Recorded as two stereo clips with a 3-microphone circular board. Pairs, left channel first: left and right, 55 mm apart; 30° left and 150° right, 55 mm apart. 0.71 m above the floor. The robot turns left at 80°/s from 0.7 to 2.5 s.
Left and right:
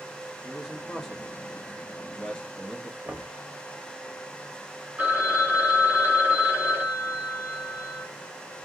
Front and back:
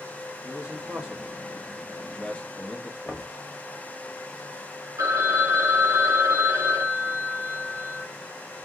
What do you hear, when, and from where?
0.4 s a man speaking: 170° right, 0.8 m; by 3.0 s 45° left, 0.8 m
3.0 s knocking: 35° right, 1.0 m
5.0 s a phone ringing: 150° right, 1.0 m